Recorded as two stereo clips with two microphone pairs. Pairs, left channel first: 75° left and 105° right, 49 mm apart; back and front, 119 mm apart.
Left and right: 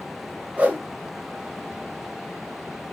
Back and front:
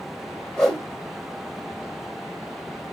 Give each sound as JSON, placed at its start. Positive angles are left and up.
{"t": 0.6, "sound": "a whoosh", "azimuth_deg": -100, "distance_m": 1.3}